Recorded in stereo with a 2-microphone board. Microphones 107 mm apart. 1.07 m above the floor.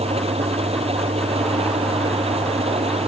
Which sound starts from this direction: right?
An engine running, at 0.0 s.